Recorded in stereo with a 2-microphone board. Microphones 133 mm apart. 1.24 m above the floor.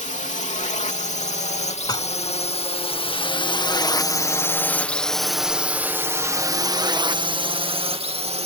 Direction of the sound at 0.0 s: 65° left (ahead or behind).